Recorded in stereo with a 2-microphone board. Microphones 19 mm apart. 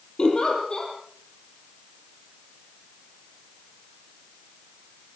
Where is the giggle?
45° left (ahead or behind), 7.5 m.